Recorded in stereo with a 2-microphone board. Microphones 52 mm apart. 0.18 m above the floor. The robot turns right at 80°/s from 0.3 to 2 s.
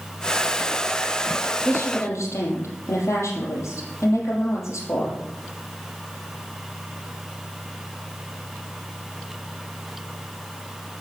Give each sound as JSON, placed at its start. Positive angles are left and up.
{"t": 1.6, "sound": "a woman speaking", "side_deg": 50, "distance_m": 5.5}